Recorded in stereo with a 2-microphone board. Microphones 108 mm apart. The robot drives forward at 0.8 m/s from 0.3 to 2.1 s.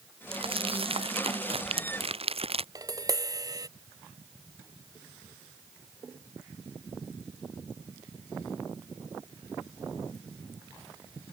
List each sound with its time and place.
0.3 s crumpling: 55° right (ahead or behind); by 2.6 s 65° right (ahead or behind)
2.8 s tapping: 35° right (ahead or behind)